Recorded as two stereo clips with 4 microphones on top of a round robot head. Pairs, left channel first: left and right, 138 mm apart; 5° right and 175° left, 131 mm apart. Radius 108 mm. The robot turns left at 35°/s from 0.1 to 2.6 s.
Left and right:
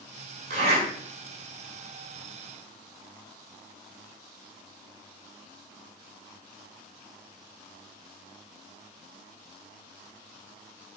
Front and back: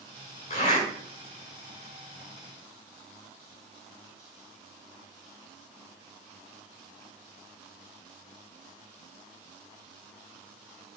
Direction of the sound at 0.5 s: 55° right.